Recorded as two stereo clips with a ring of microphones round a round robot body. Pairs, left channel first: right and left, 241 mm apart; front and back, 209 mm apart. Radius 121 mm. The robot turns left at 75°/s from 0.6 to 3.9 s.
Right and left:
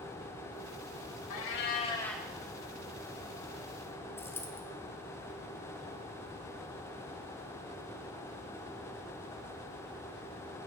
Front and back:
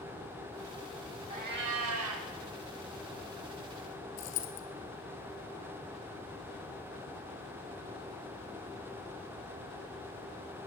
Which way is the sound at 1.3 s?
115° right.